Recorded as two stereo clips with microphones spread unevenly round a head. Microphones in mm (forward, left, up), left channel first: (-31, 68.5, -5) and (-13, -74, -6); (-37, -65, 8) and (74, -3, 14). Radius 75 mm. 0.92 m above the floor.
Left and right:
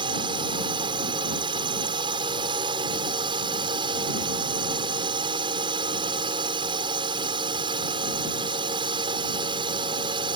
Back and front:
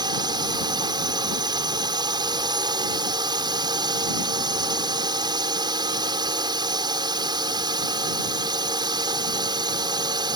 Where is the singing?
No singing in this recording.